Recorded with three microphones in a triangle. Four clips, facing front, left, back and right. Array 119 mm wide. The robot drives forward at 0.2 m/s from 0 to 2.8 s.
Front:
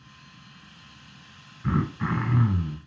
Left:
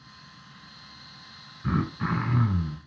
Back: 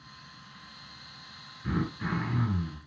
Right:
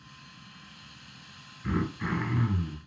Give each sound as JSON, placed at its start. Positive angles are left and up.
{"t": 1.6, "sound": "throat clearing", "azimuth_deg": 50, "distance_m": 1.1}